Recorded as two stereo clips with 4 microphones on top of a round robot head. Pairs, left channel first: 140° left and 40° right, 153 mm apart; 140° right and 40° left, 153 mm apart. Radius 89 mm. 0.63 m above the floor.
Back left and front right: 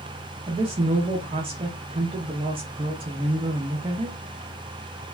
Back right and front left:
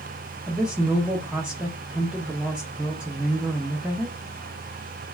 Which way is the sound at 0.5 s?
35° right.